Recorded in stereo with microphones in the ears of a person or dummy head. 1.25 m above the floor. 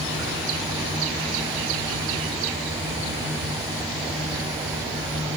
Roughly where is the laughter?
No laughter in this recording.